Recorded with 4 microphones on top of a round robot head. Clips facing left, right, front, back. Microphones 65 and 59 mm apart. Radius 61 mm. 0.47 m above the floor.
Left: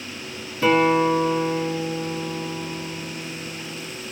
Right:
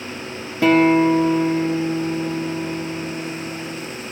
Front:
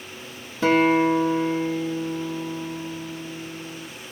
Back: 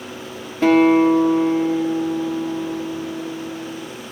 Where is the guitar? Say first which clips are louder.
Right 4 dB, back 5 dB; 125° right, 2.5 m.